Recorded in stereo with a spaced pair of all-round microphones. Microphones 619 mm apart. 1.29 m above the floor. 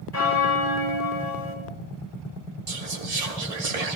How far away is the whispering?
About 1.0 m.